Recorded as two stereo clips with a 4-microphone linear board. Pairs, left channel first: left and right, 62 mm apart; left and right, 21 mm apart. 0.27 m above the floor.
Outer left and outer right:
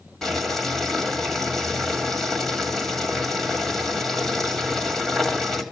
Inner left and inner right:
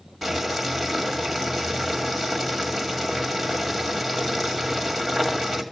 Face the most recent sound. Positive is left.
turn(degrees=5)  # may be behind; listen again after turning